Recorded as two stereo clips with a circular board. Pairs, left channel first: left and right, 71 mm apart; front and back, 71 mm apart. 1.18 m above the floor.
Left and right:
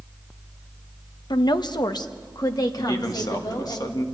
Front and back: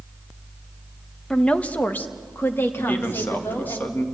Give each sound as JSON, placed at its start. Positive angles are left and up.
{"t": 1.3, "sound": "a woman speaking", "azimuth_deg": 80, "distance_m": 0.7}
{"t": 2.8, "sound": "a man speaking", "azimuth_deg": 65, "distance_m": 1.7}